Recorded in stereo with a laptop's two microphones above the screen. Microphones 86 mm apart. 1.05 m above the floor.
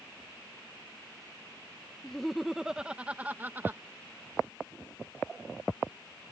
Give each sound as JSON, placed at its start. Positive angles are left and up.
{"t": 2.0, "sound": "laughter", "side_deg": 5}